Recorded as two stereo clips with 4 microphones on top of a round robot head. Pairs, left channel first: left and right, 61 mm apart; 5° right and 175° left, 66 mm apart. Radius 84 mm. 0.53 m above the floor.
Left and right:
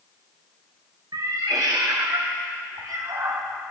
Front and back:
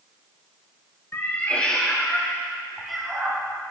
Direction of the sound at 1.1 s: 70° right.